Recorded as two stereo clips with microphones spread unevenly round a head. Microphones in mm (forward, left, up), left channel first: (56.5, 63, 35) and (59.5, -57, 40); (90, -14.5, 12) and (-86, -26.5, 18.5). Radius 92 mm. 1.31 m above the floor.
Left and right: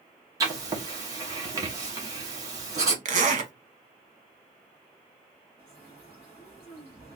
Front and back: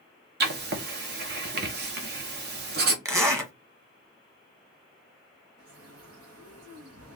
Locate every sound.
0.4 s writing: 155° right, 1.0 m
3.0 s a zipper: 100° right, 1.2 m
5.6 s a bird: 170° left, 1.1 m